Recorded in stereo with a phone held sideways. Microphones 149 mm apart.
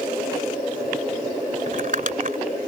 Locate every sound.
1.7 s crumpling: 60° right (ahead or behind)